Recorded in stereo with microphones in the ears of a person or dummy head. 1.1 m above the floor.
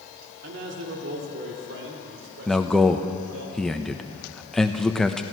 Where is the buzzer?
No buzzer in this recording.